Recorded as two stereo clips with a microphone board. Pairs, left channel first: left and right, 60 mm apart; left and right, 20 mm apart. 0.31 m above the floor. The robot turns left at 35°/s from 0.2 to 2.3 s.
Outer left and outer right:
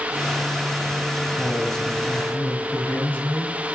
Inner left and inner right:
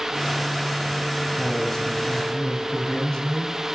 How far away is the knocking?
I don't hear knocking.